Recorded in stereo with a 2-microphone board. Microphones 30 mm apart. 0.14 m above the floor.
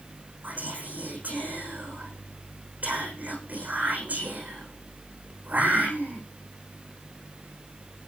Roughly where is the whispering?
Right.